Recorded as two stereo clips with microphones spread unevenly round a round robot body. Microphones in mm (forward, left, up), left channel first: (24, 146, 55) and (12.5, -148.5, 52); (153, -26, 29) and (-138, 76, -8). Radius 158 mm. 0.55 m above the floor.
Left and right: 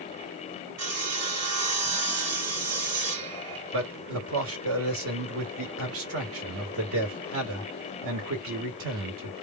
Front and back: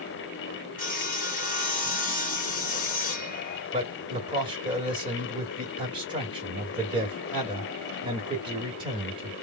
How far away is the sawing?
About 2 m.